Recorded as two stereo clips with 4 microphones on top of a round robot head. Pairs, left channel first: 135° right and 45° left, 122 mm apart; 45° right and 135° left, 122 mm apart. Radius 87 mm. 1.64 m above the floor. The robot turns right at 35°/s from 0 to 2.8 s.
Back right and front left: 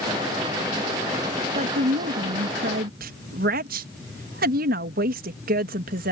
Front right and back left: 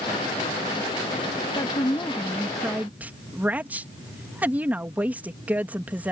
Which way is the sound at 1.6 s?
10° left.